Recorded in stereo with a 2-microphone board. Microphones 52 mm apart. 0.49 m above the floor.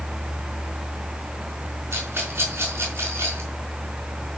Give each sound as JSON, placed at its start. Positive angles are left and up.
{"t": 1.9, "sound": "a rattle", "side_deg": -50, "distance_m": 5.0}